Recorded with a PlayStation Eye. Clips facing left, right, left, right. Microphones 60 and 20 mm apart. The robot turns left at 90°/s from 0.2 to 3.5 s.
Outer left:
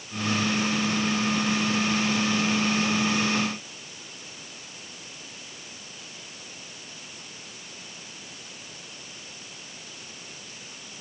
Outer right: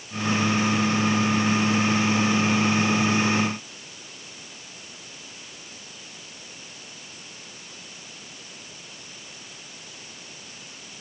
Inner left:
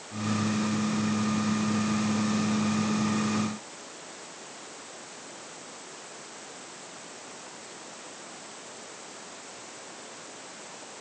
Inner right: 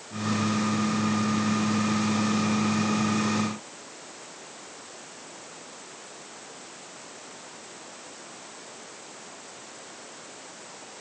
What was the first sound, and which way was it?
Only background noise.